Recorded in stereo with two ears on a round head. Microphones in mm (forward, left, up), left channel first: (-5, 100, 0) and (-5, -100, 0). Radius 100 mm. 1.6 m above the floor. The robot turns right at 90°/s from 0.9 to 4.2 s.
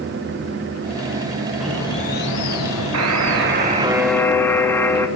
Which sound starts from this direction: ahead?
A bird, at 1.6 s.